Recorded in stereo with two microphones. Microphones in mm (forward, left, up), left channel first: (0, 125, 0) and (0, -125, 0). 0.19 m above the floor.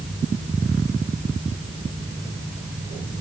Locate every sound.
Only background noise.